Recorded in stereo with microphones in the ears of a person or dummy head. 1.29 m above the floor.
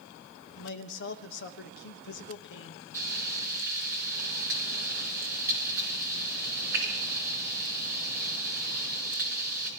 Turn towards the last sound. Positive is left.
turn(degrees=-20)  # may be behind; listen again after turning